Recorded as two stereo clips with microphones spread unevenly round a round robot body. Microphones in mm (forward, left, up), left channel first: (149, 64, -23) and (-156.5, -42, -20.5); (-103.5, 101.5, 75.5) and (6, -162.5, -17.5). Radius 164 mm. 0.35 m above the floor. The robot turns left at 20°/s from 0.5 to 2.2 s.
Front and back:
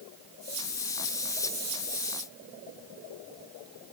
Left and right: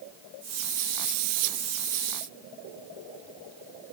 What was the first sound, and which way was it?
Only background noise.